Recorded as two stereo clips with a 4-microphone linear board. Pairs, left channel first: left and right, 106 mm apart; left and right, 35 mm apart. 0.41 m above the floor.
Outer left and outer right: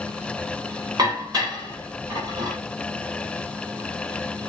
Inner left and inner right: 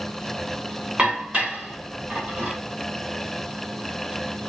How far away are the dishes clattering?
About 1.0 m.